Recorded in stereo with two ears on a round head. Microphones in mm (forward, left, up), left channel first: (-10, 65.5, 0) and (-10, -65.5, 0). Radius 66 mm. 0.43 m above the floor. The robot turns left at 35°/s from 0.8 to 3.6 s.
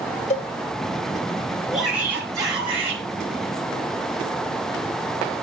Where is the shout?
Straight ahead, 8.5 m; by 3.0 s 45° right, 8.5 m.